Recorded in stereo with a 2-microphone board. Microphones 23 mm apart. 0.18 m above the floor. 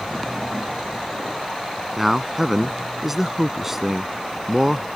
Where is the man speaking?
15° right (ahead or behind).